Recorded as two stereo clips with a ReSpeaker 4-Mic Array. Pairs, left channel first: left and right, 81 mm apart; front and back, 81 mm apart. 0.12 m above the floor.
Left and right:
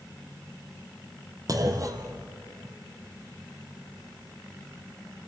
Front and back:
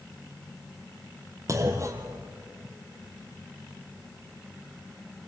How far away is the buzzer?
No buzzer in this recording.